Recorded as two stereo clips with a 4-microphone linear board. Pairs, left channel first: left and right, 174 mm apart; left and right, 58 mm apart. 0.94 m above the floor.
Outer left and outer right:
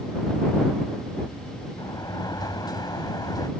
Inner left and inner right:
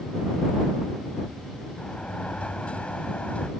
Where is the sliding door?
25° left (ahead or behind).